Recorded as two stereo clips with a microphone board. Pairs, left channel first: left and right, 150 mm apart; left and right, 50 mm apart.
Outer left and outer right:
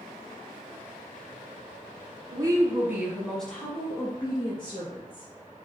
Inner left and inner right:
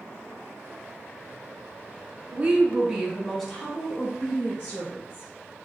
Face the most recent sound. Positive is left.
turn(degrees=35)  # may be behind; listen again after turning